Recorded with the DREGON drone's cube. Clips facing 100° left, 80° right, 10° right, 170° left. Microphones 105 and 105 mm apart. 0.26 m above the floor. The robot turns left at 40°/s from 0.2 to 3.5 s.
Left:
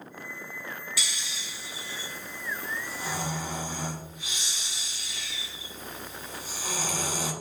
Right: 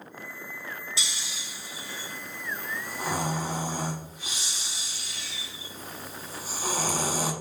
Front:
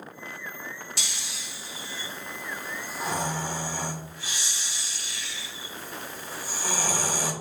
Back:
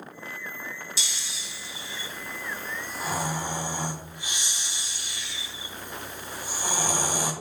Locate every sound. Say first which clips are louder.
1.0 s snoring: even, even; 20° right, 1.2 m; by 7.3 s 120° right, 1.2 m